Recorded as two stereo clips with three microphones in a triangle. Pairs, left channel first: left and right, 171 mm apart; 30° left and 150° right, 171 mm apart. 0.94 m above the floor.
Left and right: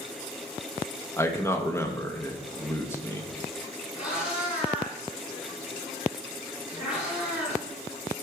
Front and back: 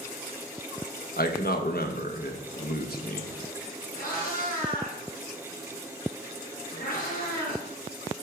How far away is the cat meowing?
About 3.5 m.